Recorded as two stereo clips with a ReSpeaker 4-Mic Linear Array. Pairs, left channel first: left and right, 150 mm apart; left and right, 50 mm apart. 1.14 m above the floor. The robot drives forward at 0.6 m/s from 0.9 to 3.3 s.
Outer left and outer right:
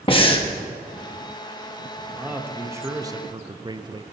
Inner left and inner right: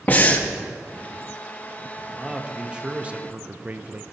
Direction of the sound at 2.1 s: 10° right (ahead or behind).